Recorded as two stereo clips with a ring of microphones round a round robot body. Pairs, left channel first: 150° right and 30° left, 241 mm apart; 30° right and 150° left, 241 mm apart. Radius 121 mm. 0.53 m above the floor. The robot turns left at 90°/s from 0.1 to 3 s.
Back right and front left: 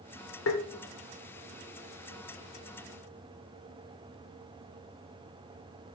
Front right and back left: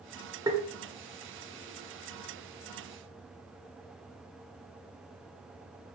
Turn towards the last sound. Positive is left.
turn(degrees=-5)